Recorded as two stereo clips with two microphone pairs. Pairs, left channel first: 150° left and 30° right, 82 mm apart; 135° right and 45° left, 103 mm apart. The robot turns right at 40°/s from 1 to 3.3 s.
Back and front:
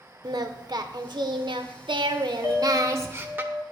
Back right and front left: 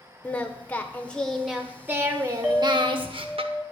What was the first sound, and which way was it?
Singing, 60° right.